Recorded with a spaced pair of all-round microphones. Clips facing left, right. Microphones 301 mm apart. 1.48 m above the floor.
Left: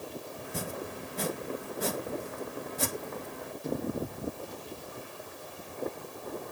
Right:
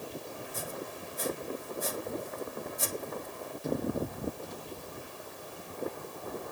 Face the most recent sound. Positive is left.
turn(degrees=75)  # may be behind; listen again after turning